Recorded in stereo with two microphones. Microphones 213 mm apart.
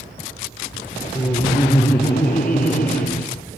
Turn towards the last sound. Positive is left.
turn(degrees=45)  # may be behind; listen again after turning